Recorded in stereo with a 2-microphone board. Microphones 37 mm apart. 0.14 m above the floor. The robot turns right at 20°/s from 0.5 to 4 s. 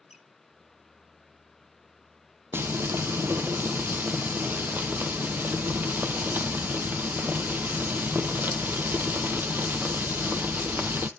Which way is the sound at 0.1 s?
5° right (ahead or behind).